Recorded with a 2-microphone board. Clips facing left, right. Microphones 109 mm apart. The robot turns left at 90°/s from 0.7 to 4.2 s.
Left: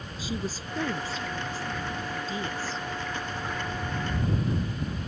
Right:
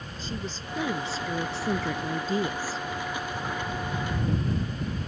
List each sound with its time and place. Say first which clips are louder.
0.2 s a woman speaking: left 3 dB; 10° left; by 2.8 s 175° left